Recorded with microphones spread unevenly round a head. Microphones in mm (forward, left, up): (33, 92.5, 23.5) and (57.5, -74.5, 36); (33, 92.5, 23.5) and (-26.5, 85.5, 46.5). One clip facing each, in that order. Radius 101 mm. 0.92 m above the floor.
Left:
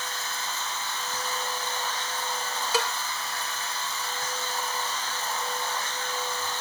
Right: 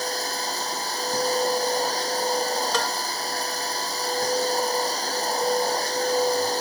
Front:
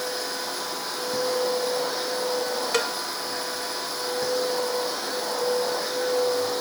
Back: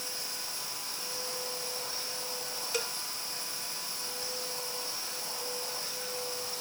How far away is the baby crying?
No baby crying in this recording.